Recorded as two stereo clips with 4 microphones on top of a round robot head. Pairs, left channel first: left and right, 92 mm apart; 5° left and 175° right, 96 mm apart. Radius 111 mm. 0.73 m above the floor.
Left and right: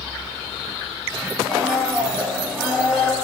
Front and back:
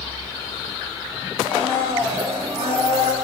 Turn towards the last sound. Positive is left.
turn(degrees=-170)